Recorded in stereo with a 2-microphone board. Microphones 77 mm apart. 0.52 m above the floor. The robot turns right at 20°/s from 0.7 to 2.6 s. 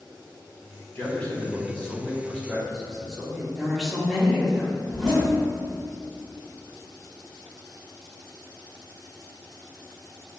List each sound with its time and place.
0.9 s a man speaking: 145° left, 1.0 m; by 3.5 s straight behind, 1.0 m
3.6 s a woman speaking: 5° left (ahead or behind), 0.9 m
4.9 s a zipper: 10° left (ahead or behind), 1.0 m